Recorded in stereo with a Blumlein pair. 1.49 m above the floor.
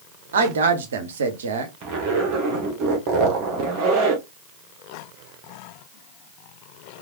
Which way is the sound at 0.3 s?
65° right.